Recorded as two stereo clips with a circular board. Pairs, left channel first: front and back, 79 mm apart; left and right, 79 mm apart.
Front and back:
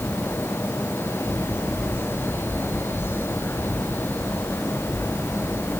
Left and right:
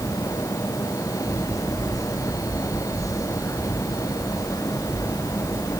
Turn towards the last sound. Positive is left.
No sound to turn to.